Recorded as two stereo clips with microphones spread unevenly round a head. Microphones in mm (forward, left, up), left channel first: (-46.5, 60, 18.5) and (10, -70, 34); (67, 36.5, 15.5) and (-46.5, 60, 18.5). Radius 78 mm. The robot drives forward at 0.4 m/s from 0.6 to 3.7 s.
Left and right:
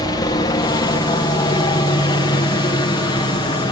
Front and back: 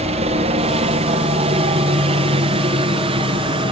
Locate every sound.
0.0 s a helicopter: 170° left; by 3.7 s 155° left